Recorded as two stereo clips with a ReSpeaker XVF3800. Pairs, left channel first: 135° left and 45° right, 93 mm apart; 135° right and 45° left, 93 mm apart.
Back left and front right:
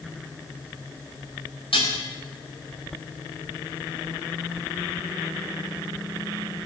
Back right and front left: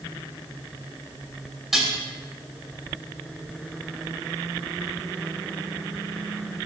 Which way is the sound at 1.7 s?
135° left.